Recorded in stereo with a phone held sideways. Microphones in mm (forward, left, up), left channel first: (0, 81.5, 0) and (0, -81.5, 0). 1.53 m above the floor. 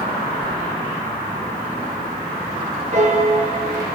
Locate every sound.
0.4 s a sliding door: 30° right (ahead or behind), 0.6 m
2.9 s a piano: 45° right (ahead or behind), 1.4 m